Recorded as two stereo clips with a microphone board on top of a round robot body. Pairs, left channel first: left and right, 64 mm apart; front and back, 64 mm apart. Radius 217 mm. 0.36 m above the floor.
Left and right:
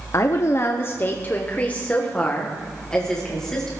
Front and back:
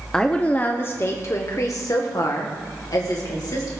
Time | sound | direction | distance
0.1 | a woman speaking | 75° left | 1.0 m